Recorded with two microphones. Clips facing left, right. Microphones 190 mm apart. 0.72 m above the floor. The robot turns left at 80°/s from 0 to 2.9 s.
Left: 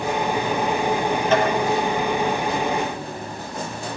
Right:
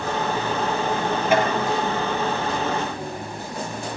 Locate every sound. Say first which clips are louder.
1.3 s tapping: even; 10° right (ahead or behind), 10 m; by 1.5 s centre (ahead or behind), 10 m